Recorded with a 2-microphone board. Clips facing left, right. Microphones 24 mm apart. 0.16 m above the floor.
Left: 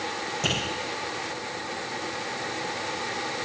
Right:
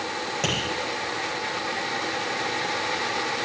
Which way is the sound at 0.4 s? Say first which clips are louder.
Even; 30° right (ahead or behind).